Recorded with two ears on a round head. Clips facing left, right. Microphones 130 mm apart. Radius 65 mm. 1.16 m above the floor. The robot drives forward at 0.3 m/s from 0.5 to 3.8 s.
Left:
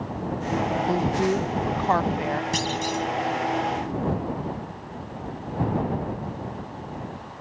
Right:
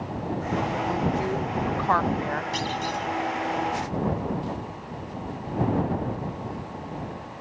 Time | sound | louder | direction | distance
0.9 | a woman speaking | left 5 dB | 35° left (ahead or behind) | ?
2.5 | a clunk | left 2 dB | 50° left (ahead or behind) | ?